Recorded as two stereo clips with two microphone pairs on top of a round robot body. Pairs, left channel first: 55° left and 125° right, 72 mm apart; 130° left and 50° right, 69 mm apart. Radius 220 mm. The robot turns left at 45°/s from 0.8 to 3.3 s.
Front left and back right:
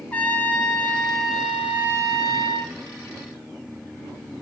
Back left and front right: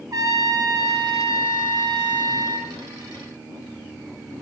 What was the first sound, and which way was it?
A trumpet, 15° right.